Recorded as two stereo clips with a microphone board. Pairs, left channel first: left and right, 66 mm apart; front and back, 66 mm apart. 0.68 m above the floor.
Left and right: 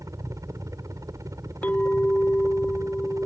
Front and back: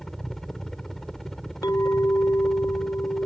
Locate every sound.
0.0 s a helicopter: 80° right
1.6 s a clink: 25° left